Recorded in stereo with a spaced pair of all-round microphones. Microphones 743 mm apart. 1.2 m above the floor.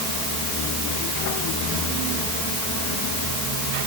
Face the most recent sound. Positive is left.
No sound to turn to.